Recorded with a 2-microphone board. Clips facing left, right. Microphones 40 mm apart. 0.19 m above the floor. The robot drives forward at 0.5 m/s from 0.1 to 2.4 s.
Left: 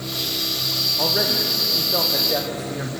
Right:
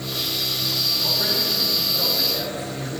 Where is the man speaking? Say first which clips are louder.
Left 2 dB; 70° left (ahead or behind), 6 m; by 2.9 s 65° left (ahead or behind), 6.5 m.